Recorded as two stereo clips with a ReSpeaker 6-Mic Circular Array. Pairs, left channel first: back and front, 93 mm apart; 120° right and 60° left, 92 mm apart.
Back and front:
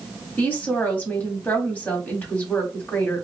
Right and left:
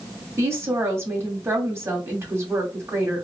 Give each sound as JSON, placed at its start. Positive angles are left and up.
{"t": 0.4, "sound": "a woman speaking", "azimuth_deg": 115, "distance_m": 1.9}